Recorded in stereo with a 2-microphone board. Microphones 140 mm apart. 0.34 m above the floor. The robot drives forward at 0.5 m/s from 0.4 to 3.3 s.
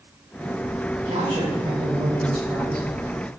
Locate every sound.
1.1 s a man speaking: 35° right (ahead or behind), 1.4 m; by 2.9 s 30° right (ahead or behind), 1.8 m